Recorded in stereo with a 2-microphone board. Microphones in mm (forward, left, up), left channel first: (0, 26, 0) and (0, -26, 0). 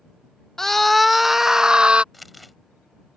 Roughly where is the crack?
No crack in this recording.